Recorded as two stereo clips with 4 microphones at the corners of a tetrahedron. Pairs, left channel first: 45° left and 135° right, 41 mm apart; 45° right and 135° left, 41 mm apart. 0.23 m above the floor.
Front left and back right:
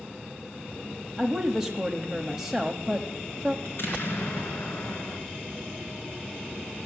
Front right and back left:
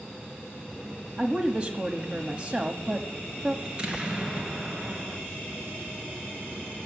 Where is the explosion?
70° left, 2.5 m.